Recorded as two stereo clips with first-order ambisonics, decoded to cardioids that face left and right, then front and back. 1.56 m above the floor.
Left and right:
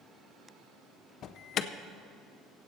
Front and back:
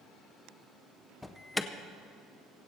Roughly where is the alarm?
Left.